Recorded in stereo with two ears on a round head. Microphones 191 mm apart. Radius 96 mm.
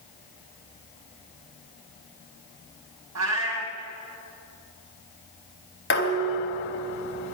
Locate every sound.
3.1 s a cat meowing: 90° right, 4 m
5.9 s dishes clattering: 55° left (ahead or behind), 3 m